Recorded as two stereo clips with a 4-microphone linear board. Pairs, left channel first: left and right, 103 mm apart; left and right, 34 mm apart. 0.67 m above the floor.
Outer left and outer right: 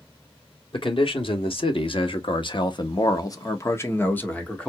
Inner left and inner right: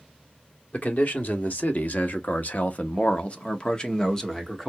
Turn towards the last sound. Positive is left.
turn(degrees=10)  # may be behind; listen again after turning